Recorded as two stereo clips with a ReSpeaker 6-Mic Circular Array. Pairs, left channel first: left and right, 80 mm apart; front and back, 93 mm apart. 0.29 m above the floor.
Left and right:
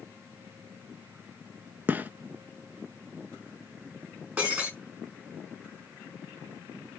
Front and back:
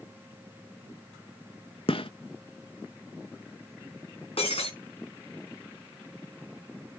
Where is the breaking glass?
20° right, 6 m.